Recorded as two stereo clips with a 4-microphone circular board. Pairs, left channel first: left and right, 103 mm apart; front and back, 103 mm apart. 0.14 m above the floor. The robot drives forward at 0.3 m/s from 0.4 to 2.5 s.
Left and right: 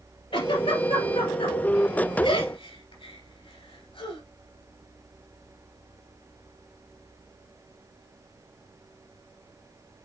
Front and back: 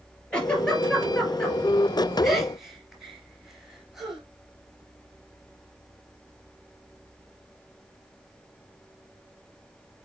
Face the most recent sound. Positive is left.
turn(degrees=95)